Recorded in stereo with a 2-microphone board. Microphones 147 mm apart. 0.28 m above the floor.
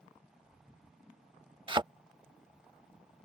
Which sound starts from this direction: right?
A thud, at 1.7 s.